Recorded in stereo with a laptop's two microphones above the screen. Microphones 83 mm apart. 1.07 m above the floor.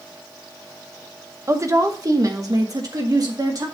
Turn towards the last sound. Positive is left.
turn(degrees=-45)  # may be behind; listen again after turning